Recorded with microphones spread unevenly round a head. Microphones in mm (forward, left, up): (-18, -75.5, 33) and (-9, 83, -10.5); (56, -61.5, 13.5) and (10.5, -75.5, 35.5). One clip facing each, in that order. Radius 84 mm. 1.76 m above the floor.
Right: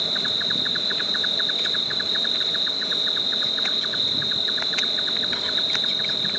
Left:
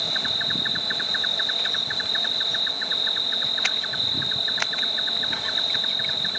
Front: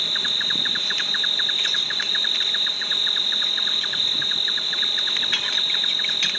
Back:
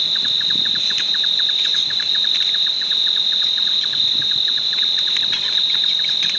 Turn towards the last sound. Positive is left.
turn(degrees=-60)